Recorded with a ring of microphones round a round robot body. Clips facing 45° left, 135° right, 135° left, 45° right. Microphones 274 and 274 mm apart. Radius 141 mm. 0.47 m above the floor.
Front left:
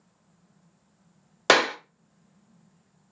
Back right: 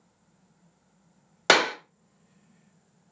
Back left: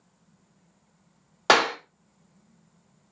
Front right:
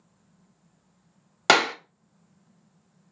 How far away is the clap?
About 0.8 m.